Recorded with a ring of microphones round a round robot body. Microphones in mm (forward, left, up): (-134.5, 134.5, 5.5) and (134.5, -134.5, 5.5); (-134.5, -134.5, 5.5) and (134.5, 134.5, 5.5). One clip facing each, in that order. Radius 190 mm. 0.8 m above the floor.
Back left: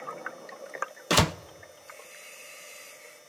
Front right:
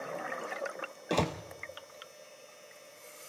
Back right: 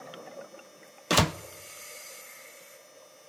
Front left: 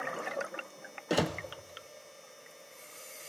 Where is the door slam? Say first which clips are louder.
Back left 4 dB, back right 2 dB; 175° left, 0.6 m.